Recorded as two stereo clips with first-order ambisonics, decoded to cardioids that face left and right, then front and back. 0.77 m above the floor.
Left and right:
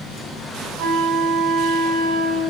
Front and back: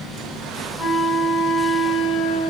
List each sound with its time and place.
0.8 s a flute: 95° right, 3.5 m